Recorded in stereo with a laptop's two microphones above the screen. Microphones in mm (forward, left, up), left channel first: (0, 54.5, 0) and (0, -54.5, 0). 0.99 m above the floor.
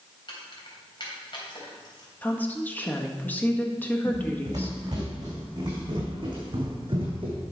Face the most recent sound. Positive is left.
turn(degrees=-50)  # may be behind; listen again after turning